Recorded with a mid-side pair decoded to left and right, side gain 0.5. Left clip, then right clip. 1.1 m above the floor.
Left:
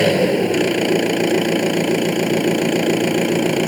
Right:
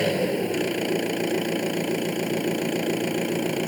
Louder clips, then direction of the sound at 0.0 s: Left 8 dB; 50° left.